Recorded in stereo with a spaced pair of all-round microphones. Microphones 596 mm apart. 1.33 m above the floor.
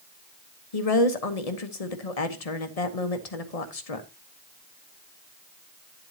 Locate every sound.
0.7 s a woman speaking: 75° left (ahead or behind), 1.3 m